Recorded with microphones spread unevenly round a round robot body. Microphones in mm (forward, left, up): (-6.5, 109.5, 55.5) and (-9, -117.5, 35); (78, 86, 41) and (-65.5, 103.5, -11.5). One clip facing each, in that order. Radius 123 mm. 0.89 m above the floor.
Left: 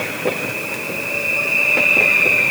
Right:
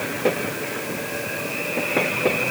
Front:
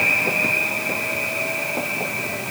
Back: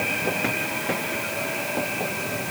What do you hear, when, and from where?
Only background noise.